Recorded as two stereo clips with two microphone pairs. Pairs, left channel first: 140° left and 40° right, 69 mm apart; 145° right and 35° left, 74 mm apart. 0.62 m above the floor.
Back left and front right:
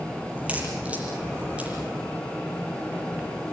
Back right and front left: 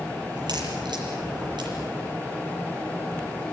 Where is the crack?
30° left, 6.5 m.